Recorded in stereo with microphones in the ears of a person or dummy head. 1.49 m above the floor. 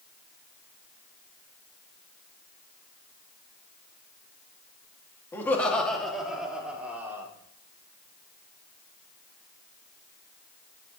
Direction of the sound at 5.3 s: 15° left (ahead or behind).